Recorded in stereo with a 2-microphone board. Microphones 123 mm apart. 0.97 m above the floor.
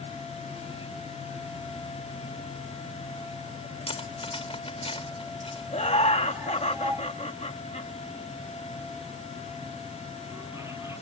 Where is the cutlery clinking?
50° left (ahead or behind).